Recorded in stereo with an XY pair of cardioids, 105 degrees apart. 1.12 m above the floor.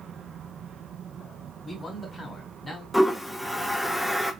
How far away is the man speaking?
About 2 m.